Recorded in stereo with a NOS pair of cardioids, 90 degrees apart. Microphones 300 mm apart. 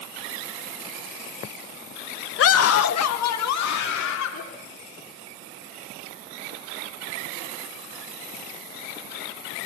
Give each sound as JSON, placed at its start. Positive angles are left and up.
{"t": 2.4, "sound": "a scream", "azimuth_deg": 45, "distance_m": 0.7}